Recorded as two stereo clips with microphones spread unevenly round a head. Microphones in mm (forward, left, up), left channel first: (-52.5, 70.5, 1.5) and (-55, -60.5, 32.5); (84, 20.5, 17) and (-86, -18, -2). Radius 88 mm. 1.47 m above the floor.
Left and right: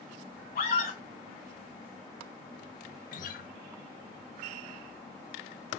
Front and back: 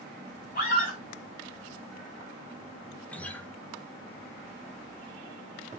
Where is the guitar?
90° left, 0.9 m.